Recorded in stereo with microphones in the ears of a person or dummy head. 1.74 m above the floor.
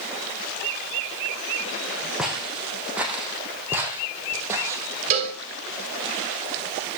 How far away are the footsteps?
About 5 m.